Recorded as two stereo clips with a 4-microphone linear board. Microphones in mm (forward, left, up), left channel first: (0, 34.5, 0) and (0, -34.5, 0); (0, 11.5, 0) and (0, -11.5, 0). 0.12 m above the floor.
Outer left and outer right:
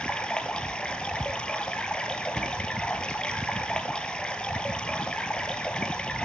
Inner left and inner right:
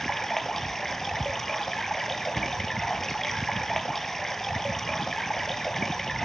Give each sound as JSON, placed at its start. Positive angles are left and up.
{"t": 0.0, "sound": "running water", "side_deg": 15, "distance_m": 0.8}
{"t": 2.4, "sound": "a cupboard door", "side_deg": -15, "distance_m": 1.2}